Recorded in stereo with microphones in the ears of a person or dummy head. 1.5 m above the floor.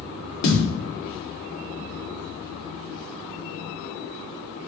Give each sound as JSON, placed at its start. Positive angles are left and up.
{"t": 0.4, "sound": "a thud", "side_deg": 50, "distance_m": 1.4}